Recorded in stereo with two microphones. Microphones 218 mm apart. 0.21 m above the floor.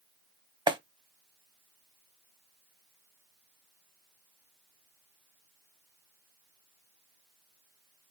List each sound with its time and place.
0.7 s a clap: 20° right (ahead or behind), 0.7 m